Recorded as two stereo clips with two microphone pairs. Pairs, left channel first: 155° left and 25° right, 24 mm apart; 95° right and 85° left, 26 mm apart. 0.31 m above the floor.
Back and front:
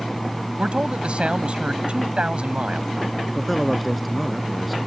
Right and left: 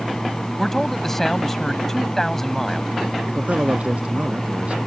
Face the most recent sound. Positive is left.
turn(degrees=65)